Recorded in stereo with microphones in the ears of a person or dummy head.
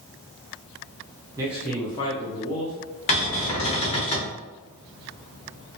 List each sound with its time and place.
1.4 s a man speaking: 10° right (ahead or behind), 0.7 m; by 4.1 s 70° left (ahead or behind), 1.7 m
3.1 s a cupboard door: 35° left (ahead or behind), 0.8 m